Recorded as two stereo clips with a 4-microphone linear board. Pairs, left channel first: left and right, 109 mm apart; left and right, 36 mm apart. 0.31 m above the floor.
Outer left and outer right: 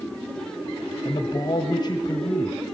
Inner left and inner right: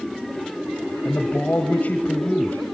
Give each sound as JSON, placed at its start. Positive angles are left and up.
{"t": 1.1, "sound": "a man speaking", "side_deg": 45, "distance_m": 1.3}